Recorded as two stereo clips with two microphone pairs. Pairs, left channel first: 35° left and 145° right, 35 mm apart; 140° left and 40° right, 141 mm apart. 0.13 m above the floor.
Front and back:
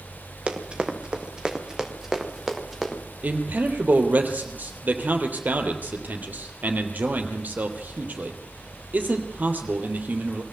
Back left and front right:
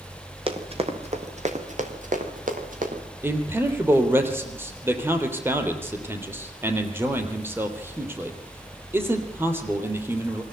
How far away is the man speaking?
About 3 m.